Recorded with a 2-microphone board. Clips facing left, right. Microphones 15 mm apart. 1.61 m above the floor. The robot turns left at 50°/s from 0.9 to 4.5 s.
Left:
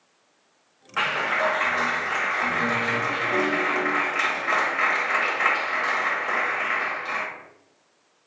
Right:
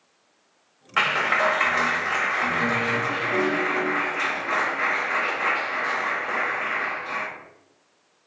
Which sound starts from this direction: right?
A clap, at 1.0 s.